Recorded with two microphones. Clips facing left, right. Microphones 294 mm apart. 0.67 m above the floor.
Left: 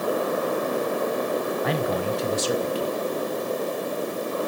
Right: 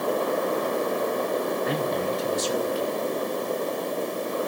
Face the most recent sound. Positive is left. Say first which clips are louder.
# left 1 dB
turn(degrees=75)  # may be behind; listen again after turning